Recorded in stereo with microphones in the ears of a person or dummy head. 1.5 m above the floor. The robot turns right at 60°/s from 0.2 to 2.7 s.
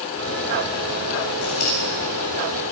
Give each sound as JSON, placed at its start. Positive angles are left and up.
{"t": 1.4, "sound": "scissors", "side_deg": 65, "distance_m": 9.5}